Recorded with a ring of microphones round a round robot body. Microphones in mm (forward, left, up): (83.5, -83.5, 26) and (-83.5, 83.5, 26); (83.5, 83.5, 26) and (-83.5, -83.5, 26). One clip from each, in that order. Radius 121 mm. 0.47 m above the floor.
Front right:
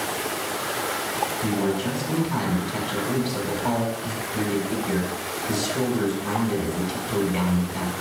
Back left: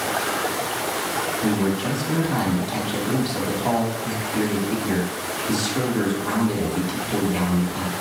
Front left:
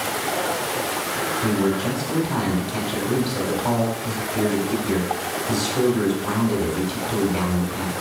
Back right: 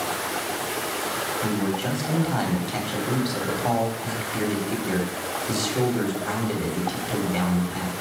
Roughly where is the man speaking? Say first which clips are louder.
Back left 2 dB, front left 4 dB; behind right.